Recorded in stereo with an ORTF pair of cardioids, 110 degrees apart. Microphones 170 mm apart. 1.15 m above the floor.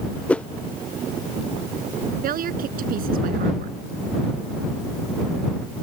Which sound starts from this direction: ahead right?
A woman speaking, at 2.2 s.